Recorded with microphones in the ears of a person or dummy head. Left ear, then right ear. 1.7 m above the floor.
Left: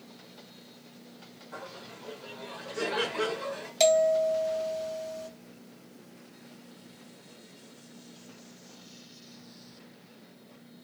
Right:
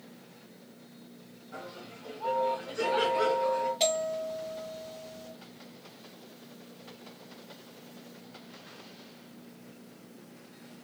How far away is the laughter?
About 2.5 m.